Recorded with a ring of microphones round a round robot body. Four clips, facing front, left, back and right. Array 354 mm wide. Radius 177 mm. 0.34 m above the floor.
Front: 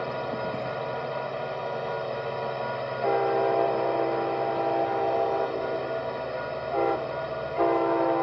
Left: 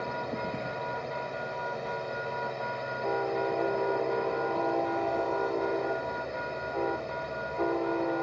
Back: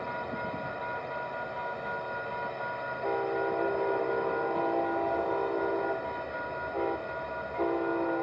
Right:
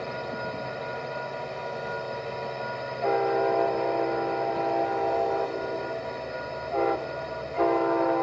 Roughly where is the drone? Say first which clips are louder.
Right 1 dB, front 5 dB; ahead.